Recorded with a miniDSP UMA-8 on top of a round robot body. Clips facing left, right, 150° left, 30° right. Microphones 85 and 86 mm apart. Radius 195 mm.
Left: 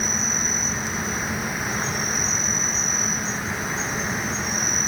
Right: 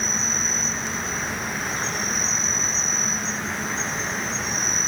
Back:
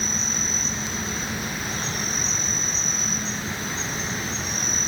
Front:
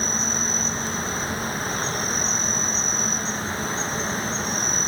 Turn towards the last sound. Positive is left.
turn(degrees=5)